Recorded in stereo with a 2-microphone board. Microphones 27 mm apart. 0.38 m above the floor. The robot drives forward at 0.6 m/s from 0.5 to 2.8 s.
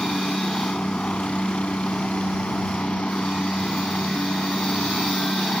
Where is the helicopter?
50° left (ahead or behind).